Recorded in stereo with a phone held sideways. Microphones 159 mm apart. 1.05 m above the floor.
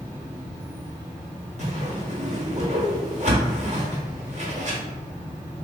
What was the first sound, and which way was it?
An insect, 45° left (ahead or behind).